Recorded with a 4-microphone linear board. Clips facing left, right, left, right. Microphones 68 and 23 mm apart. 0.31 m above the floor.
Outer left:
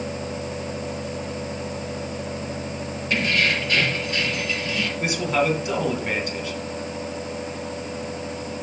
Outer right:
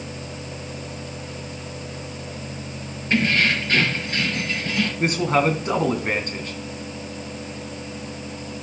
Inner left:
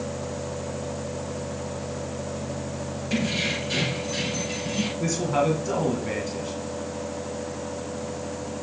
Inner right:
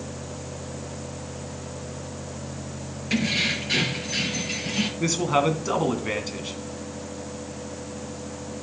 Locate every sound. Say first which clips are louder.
3.1 s keys jangling: outer right 2 dB, inner right 3 dB; 30° right (ahead or behind), 3.5 m; by 4.9 s 45° right (ahead or behind), 4 m
5.0 s a man speaking: outer right 3 dB, inner right 2 dB; 40° right (ahead or behind), 2.5 m